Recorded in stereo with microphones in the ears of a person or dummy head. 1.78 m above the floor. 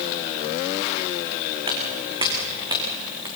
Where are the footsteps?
30° right (ahead or behind), 5 m; by 3.3 s 20° right (ahead or behind), 6 m.